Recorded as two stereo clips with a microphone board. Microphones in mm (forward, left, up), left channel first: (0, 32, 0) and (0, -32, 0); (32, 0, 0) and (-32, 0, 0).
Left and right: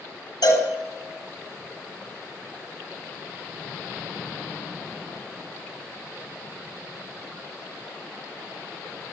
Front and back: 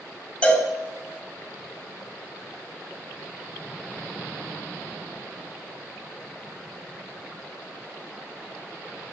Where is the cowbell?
75° left, 3.5 m.